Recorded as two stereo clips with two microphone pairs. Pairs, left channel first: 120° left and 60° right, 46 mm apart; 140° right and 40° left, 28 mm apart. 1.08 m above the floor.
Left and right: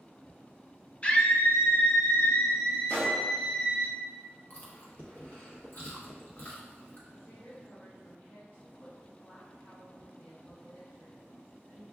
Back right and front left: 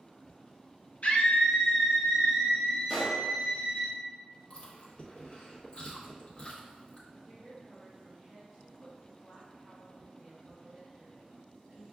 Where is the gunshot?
145° left, 1.5 m.